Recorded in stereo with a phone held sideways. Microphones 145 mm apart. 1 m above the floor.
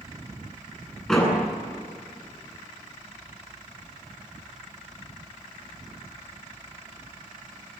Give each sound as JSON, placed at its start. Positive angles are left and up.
{"t": 1.1, "sound": "a door slam", "side_deg": 5, "distance_m": 9.0}